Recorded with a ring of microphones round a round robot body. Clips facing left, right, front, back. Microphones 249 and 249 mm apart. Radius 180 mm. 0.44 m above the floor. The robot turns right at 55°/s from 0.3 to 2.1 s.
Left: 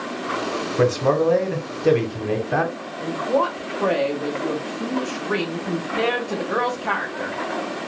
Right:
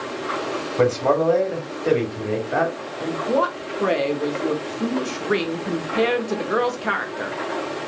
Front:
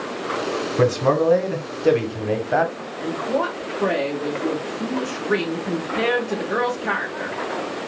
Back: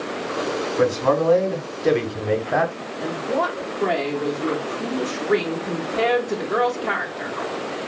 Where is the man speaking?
15° left, 1.1 m; by 2.7 s 85° left, 1.1 m.